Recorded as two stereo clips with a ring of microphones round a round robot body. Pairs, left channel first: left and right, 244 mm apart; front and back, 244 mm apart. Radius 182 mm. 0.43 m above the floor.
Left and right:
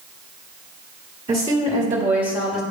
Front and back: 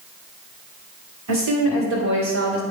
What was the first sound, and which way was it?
A woman speaking, 160° right.